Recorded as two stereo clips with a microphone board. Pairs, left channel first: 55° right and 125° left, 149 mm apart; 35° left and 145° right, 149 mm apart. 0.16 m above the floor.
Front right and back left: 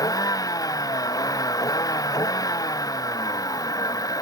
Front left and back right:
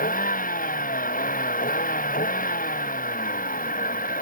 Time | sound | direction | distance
0.0 | a vehicle | 10° left | ?